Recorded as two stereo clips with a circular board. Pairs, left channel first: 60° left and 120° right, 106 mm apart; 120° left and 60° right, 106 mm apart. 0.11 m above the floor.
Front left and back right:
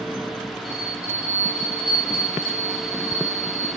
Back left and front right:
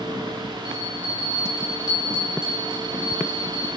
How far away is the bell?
About 1.4 m.